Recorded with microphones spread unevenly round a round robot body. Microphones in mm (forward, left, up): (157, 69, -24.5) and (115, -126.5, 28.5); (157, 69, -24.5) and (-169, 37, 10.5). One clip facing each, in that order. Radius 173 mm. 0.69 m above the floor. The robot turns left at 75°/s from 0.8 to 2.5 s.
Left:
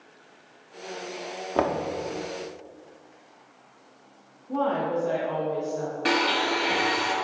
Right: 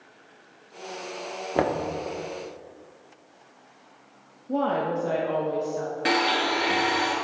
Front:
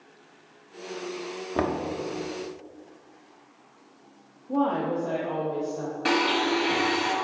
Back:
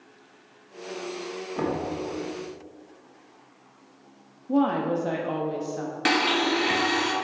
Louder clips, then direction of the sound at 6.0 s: Even, even; 160° left.